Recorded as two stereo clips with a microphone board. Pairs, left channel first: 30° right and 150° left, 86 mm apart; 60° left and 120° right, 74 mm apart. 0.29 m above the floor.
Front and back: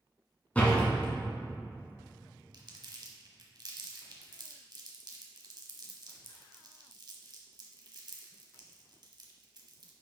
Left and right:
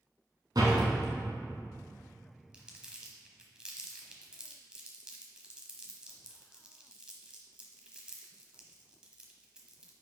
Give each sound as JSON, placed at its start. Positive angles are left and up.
{"t": 0.6, "sound": "a door slam", "azimuth_deg": -105, "distance_m": 1.9}
{"t": 2.5, "sound": "crumpling", "azimuth_deg": 165, "distance_m": 1.2}